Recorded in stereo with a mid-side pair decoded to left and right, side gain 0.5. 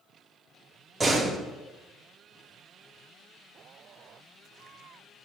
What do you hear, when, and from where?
1.0 s a door slam: 30° right, 2.5 m